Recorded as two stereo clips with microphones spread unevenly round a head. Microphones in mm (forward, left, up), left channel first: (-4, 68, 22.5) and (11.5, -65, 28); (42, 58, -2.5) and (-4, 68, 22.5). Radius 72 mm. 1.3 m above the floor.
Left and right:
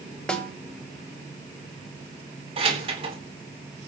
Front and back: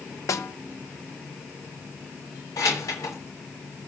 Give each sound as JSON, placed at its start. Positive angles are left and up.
{"t": 0.3, "sound": "a snare drum", "azimuth_deg": 10, "distance_m": 1.7}
{"t": 2.6, "sound": "keys jangling", "azimuth_deg": -35, "distance_m": 3.0}